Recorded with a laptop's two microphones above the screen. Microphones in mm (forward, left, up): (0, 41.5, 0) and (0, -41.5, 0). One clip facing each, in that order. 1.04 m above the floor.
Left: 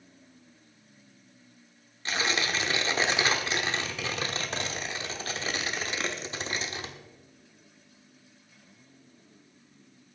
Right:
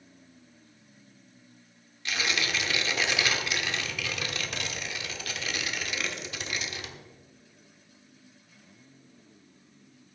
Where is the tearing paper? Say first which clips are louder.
Left 2 dB; 35° left (ahead or behind), 1.1 m.